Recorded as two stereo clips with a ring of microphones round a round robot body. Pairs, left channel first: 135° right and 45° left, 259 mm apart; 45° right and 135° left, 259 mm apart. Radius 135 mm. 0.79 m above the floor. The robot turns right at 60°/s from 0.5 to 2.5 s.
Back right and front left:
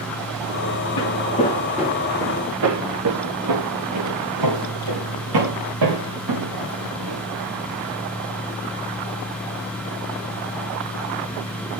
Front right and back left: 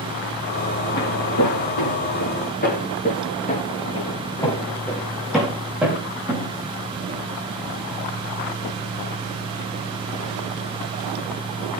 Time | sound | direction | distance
1.0 | footsteps | 100° right | 5 m